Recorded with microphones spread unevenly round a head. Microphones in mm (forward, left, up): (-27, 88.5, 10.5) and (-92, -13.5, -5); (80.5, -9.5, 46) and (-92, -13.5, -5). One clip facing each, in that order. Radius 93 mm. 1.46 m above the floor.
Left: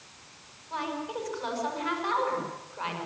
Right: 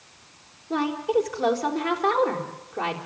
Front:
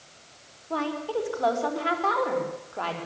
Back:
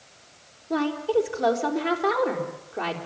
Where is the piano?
No piano in this recording.